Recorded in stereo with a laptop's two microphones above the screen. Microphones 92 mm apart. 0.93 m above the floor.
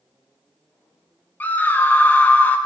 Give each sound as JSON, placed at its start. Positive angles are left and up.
{"t": 1.4, "sound": "a scream", "side_deg": 20, "distance_m": 0.5}